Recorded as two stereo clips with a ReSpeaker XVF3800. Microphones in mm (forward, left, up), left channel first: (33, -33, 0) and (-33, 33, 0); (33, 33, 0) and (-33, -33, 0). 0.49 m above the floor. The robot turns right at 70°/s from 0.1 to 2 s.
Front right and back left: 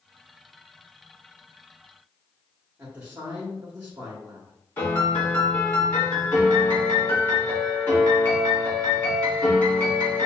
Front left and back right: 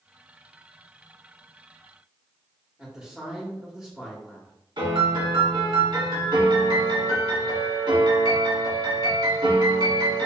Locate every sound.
2.8 s a man speaking: 150° left, 1.0 m
4.8 s a piano: 115° right, 2.0 m